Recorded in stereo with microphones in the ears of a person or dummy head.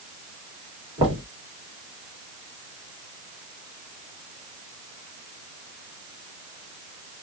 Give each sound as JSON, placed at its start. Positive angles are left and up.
{"t": 1.0, "sound": "knocking", "side_deg": -25, "distance_m": 2.5}